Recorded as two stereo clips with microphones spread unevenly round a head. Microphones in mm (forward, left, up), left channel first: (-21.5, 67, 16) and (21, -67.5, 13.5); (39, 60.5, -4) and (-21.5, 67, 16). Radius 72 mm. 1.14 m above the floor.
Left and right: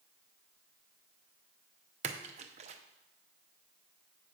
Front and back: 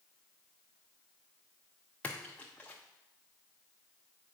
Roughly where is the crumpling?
No crumpling in this recording.